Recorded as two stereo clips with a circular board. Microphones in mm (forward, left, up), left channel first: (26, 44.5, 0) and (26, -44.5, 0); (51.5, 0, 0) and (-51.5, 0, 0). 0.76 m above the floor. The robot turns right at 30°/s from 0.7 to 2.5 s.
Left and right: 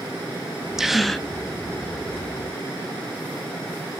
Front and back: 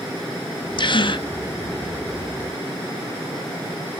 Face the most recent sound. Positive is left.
turn(degrees=45)